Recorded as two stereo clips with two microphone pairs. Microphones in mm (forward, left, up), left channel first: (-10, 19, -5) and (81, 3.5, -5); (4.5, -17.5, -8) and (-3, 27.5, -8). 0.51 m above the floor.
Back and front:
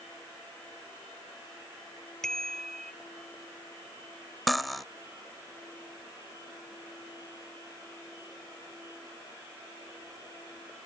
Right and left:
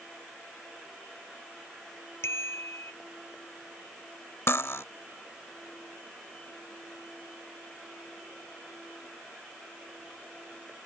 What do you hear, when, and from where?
2.2 s a bicycle bell: 105° right
4.5 s cutlery clinking: 100° right